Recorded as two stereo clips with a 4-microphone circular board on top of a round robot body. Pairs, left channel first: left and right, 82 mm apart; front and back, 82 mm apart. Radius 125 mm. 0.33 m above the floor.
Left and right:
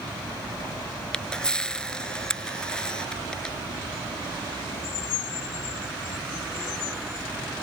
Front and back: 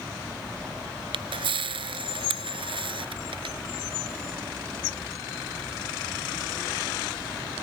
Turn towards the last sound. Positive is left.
turn(degrees=170)